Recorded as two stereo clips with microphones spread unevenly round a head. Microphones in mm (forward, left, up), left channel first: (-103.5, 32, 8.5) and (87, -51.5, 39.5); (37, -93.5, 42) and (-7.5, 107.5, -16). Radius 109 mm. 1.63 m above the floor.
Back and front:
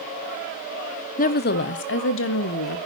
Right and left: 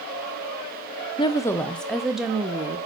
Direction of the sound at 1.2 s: 145° right.